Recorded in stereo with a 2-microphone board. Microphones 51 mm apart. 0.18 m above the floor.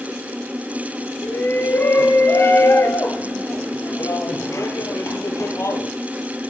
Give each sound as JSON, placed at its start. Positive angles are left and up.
{"t": 1.2, "sound": "a shout", "side_deg": 45, "distance_m": 2.5}